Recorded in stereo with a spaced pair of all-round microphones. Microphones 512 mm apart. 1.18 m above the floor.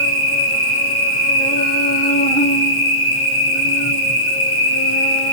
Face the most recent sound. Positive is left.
turn(degrees=10)  # may be behind; listen again after turning